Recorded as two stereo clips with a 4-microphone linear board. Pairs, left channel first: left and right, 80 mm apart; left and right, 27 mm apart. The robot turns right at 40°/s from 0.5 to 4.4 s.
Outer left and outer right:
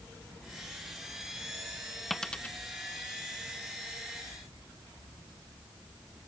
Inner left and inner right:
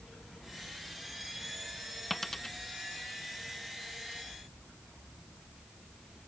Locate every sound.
2.1 s a dropped coin: centre (ahead or behind); by 2.6 s 20° left (ahead or behind)